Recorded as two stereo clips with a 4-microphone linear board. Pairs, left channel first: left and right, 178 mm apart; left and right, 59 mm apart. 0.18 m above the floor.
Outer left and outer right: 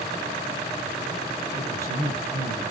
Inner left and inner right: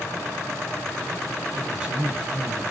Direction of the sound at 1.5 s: 20° right (ahead or behind).